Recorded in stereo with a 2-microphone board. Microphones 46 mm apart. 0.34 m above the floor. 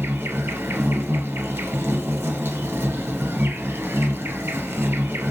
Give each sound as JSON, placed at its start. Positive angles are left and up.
{"t": 0.0, "sound": "an insect", "side_deg": -70, "distance_m": 0.7}